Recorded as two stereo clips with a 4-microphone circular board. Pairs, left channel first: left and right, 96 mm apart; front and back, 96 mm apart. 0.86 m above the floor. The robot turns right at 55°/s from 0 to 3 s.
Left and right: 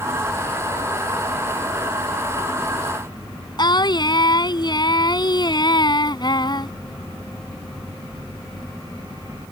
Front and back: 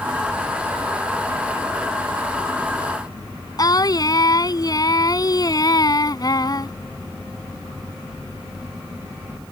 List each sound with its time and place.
3.6 s singing: 50° left